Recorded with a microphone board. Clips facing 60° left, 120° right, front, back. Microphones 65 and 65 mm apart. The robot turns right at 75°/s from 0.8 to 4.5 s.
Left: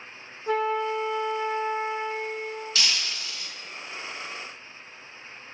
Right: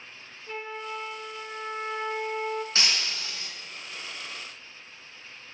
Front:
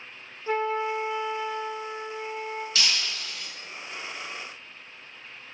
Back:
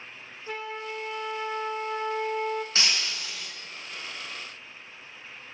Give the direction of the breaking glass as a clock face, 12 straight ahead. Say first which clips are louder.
Even, even; 5 o'clock.